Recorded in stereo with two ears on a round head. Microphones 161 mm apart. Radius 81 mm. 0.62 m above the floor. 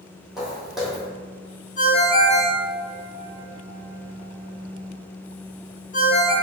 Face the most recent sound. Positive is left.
turn(degrees=45)  # may be behind; listen again after turning